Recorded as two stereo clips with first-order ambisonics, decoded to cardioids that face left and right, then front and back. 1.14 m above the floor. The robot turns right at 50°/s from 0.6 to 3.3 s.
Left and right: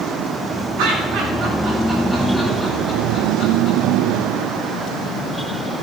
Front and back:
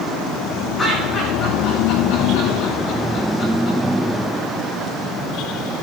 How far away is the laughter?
About 5.5 m.